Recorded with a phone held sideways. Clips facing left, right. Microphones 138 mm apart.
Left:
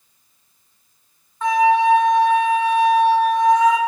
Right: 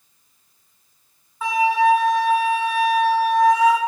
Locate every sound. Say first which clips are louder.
1.4 s a flute: left 3 dB; 5° right (ahead or behind), 2.5 m